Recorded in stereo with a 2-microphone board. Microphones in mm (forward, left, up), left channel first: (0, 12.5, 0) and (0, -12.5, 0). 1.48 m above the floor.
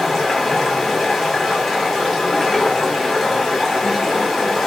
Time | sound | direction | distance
0.0 | running water | 10° left (ahead or behind) | 0.9 m